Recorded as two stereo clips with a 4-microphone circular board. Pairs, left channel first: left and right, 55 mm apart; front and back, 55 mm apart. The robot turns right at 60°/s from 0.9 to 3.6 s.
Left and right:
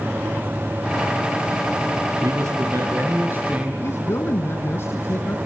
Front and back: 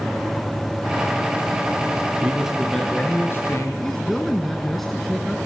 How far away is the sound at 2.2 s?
About 3.5 m.